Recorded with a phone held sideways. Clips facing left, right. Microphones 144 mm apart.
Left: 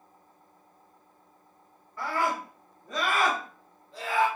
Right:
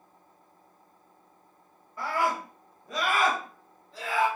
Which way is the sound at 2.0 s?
20° right (ahead or behind).